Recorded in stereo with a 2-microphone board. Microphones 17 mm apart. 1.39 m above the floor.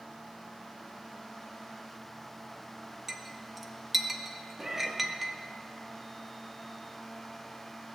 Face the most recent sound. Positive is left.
turn(degrees=-35)  # may be behind; listen again after turning